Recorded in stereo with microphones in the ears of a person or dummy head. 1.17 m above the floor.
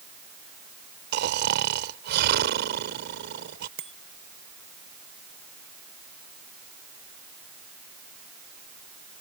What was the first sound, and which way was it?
Snoring, 60° right (ahead or behind).